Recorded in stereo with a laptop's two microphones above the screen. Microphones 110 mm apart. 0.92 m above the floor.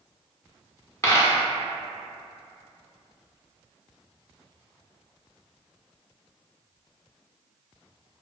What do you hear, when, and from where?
1.0 s a dropped coin: 25° left (ahead or behind), 0.8 m